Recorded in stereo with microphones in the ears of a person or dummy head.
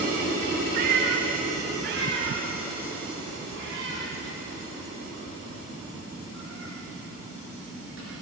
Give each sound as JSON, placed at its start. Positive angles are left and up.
{"t": 0.7, "sound": "a cat meowing", "side_deg": -60, "distance_m": 2.5}